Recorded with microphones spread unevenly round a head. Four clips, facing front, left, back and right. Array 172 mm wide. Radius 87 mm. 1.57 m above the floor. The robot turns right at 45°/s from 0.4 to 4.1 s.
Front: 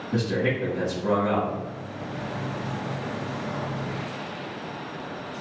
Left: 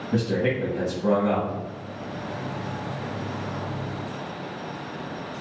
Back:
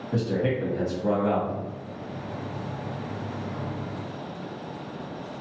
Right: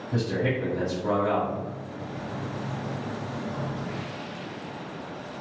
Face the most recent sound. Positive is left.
turn(degrees=-100)